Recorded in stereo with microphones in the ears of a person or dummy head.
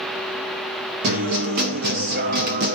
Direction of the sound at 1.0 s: 40° right (ahead or behind).